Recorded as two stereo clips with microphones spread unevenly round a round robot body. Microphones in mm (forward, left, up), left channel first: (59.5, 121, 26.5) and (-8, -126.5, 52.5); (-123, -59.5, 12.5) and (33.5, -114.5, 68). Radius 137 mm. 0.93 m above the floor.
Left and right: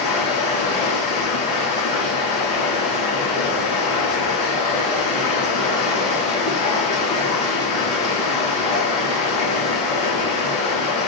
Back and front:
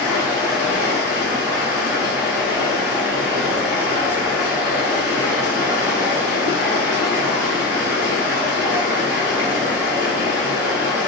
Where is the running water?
135° left, 1.0 m.